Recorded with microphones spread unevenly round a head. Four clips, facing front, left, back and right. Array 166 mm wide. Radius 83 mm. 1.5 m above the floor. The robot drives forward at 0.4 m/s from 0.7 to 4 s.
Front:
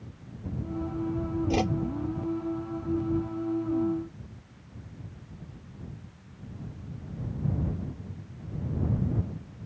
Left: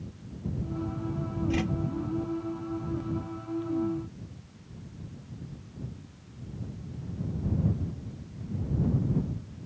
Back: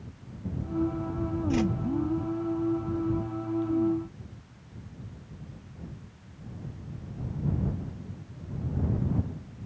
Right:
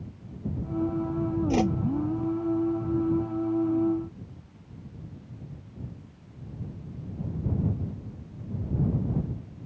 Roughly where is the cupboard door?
No cupboard door in this recording.